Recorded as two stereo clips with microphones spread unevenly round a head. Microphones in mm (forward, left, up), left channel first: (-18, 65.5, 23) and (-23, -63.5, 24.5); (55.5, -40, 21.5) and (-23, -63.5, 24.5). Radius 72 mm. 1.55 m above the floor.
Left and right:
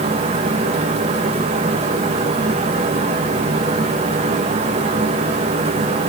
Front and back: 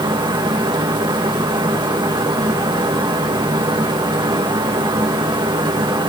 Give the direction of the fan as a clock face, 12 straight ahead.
4 o'clock.